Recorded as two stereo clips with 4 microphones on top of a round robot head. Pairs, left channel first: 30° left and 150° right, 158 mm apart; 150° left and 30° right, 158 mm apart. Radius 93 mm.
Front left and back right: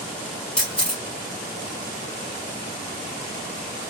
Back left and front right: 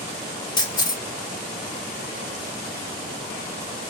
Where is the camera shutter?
110° left, 1.0 m.